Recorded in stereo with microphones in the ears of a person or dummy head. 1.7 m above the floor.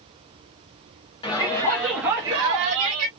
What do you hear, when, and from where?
1.2 s a shout: 25° left (ahead or behind), 0.9 m; by 3.1 s 50° right (ahead or behind), 0.9 m